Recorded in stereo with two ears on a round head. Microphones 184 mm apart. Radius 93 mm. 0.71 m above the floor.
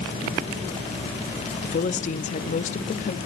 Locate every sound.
1.6 s a woman speaking: 40° left (ahead or behind), 0.8 m